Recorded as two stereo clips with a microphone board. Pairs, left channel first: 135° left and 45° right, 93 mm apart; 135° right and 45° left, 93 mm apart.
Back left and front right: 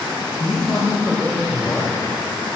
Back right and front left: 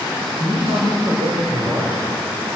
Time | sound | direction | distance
0.4 | a man speaking | 65° left | 6 m